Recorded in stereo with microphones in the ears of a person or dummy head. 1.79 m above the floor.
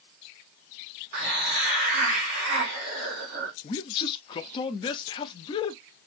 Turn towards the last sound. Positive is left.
turn(degrees=30)  # may be behind; listen again after turning